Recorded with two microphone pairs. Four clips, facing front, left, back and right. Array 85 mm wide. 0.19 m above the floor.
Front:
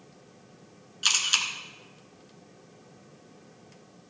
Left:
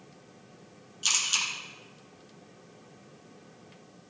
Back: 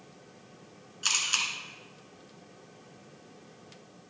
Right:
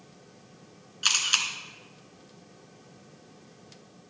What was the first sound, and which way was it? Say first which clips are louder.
A camera shutter: right 3 dB, front 2 dB; 50° right.